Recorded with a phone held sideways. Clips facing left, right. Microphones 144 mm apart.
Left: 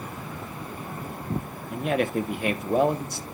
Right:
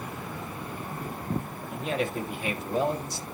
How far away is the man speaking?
About 1.3 m.